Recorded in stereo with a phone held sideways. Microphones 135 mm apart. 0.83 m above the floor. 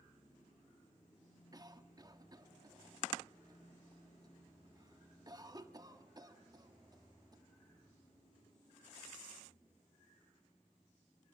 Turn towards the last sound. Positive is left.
turn(degrees=-30)  # may be behind; listen again after turning